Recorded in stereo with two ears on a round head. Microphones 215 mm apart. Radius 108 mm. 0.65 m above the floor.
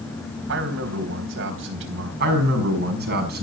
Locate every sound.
0.5 s a man speaking: 55° right (ahead or behind), 3 m
2.2 s a man speaking: 45° right (ahead or behind), 5.5 m